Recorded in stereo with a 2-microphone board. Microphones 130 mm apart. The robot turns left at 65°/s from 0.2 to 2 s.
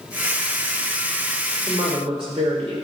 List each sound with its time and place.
1.7 s a woman speaking: 25° right (ahead or behind), 3 m; by 2.8 s 45° right (ahead or behind), 3 m